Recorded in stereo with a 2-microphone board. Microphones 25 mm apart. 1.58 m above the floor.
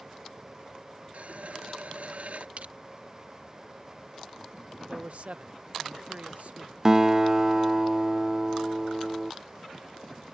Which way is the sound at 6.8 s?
25° right (ahead or behind).